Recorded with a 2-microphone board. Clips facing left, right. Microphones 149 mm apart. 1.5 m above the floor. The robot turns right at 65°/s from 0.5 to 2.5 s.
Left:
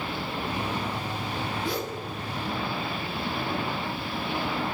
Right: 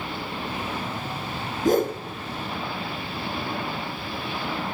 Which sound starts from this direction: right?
A whoosh, at 1.6 s.